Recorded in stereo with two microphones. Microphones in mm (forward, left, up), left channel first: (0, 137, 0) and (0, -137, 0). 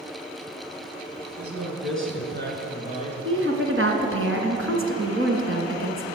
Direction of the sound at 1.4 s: 55° right (ahead or behind).